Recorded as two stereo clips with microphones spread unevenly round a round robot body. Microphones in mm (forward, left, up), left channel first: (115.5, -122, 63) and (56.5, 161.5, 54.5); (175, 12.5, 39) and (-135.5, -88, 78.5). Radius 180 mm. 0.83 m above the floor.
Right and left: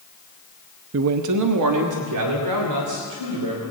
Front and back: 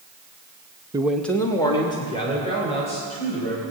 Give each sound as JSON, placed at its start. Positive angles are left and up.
{"t": 0.9, "sound": "a man speaking", "azimuth_deg": 115, "distance_m": 0.5}